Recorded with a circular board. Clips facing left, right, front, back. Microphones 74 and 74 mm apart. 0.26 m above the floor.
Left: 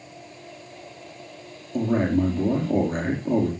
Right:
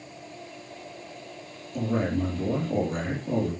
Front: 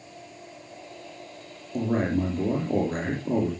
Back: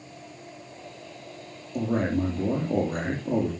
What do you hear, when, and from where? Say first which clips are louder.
1.7 s a man speaking: left 5 dB, front 1 dB; 50° left, 5.5 m